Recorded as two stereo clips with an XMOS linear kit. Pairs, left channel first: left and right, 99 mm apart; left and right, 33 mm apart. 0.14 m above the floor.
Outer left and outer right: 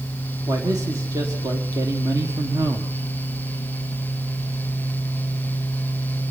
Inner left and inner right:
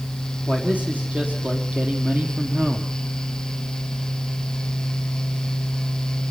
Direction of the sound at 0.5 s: 35° right (ahead or behind).